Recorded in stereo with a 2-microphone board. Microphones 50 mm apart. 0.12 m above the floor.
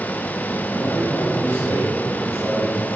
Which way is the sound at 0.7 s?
45° left (ahead or behind).